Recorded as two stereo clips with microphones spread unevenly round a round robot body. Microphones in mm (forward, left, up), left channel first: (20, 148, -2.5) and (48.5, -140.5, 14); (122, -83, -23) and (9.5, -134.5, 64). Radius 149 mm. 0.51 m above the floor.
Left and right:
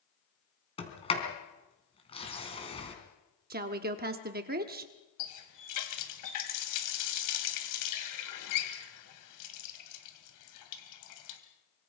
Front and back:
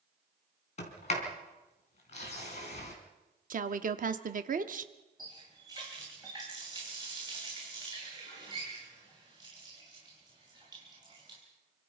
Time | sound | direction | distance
0.8 | a sliding door | 25° left | 3.5 m
3.5 | a woman speaking | 120° right | 1.2 m
5.2 | a running tap | 125° left | 2.5 m